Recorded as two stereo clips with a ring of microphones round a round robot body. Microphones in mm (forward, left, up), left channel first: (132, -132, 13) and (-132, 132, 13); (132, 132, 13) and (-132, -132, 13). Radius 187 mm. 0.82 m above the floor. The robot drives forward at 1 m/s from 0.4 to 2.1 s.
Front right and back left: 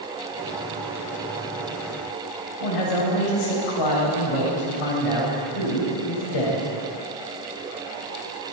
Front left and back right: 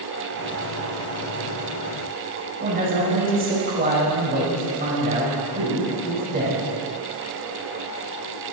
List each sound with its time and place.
2.6 s a man speaking: 70° right, 5.5 m